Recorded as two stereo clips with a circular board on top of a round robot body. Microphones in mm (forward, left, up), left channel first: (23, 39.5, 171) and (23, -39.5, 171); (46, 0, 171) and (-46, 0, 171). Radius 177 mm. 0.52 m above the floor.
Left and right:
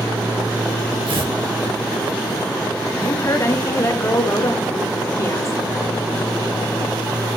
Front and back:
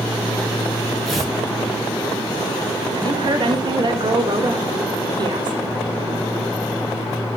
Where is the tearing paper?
90° right, 5.5 m.